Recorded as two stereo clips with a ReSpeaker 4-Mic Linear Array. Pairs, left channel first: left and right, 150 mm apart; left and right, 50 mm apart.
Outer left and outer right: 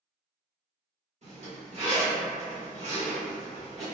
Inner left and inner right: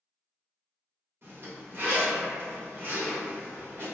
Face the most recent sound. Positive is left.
turn(degrees=-50)  # may be behind; listen again after turning